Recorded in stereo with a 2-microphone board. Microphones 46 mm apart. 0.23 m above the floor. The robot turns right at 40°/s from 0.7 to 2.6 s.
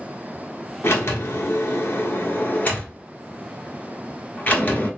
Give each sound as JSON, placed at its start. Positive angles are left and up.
{"t": 0.8, "sound": "a sliding door", "azimuth_deg": 75, "distance_m": 1.0}